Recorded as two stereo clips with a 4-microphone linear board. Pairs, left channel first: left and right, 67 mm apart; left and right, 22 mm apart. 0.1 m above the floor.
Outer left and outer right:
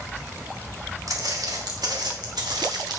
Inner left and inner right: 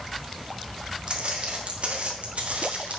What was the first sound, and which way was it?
Footsteps, 60° right (ahead or behind).